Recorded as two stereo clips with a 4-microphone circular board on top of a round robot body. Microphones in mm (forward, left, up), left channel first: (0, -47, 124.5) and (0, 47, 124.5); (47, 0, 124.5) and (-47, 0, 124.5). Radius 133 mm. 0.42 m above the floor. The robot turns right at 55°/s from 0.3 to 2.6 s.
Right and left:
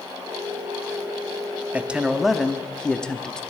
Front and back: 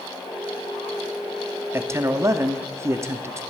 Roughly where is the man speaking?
Behind left.